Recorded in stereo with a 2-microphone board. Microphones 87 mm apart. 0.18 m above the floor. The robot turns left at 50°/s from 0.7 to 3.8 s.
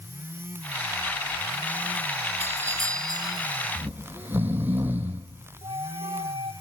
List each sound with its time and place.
2.4 s a doorbell: 25° right, 3.5 m; by 3.5 s 80° right, 3.5 m
3.8 s snoring: 25° right (ahead or behind), 2.0 m; by 5.3 s 20° right (ahead or behind), 2.0 m
5.6 s a flute: 70° right (ahead or behind), 2.5 m